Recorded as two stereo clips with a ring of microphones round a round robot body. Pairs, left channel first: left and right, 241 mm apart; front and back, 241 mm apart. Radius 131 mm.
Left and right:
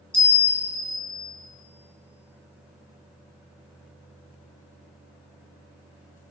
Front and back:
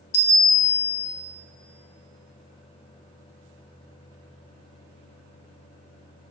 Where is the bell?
5° left, 0.9 m.